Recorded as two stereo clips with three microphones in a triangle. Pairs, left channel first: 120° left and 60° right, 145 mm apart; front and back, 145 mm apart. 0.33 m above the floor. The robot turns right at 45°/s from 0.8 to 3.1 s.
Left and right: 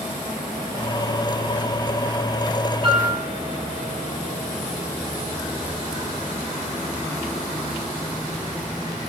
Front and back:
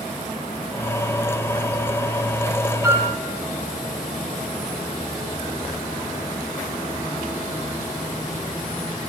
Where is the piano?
110° right, 6.5 m; by 3.1 s 100° right, 6.5 m.